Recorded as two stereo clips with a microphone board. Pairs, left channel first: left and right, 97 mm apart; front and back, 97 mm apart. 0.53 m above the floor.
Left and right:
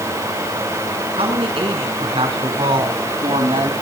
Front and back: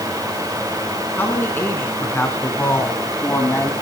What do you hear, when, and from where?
1.2 s a man speaking: 70° right, 6 m; by 3.7 s 65° right, 4.5 m